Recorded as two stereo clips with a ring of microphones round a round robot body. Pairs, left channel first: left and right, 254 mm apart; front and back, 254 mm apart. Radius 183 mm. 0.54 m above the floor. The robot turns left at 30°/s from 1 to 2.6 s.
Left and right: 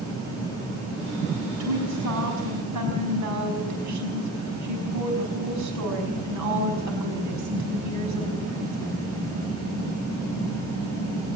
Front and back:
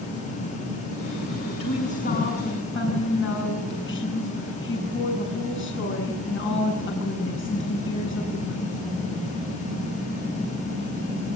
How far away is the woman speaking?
About 5.5 m.